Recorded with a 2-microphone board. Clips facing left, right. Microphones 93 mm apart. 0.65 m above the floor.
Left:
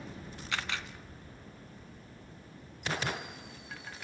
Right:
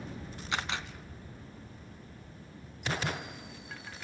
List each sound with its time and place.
0.5 s a camera shutter: 20° right (ahead or behind), 1.8 m